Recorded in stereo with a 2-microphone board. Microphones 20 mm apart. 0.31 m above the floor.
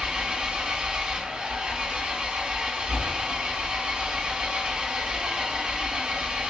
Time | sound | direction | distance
0.0 | an engine running | 75° right (ahead or behind) | 0.9 m